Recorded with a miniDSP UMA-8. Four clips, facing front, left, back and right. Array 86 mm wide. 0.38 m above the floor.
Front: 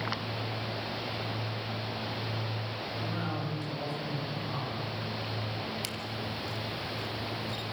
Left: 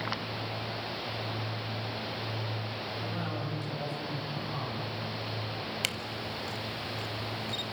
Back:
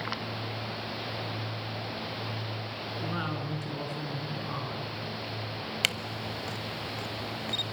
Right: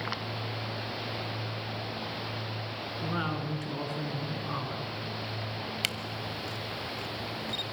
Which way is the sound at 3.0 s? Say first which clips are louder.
Right 6 dB, back 2 dB; 120° right.